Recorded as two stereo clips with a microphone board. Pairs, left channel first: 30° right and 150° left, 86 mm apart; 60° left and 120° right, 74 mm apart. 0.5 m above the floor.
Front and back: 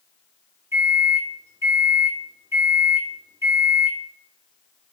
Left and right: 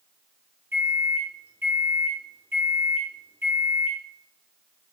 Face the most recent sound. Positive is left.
turn(degrees=-170)